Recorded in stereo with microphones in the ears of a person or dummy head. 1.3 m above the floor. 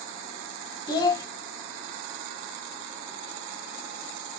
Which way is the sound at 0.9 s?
25° left (ahead or behind).